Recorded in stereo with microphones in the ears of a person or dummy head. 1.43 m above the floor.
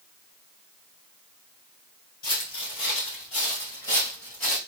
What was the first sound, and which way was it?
Footsteps, 40° left (ahead or behind).